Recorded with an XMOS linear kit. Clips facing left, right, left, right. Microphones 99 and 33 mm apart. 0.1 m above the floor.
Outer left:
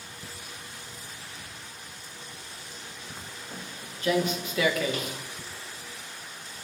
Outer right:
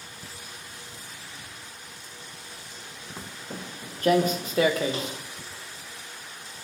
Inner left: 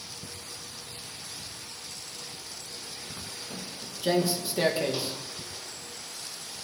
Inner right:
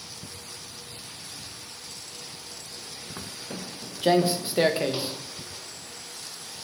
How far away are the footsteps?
About 1.9 m.